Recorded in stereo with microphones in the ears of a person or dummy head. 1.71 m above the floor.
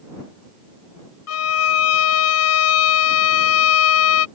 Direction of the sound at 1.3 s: 80° left.